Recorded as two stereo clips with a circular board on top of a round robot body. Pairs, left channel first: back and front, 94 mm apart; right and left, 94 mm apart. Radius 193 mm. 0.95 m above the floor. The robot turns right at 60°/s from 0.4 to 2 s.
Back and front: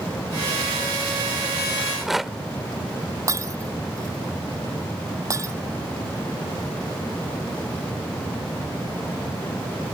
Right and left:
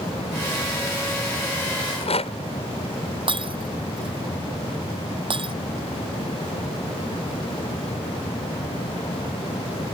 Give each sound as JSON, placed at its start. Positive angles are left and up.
{"t": 1.8, "sound": "a rattle", "azimuth_deg": -100}
{"t": 3.3, "sound": "breaking glass", "azimuth_deg": 60}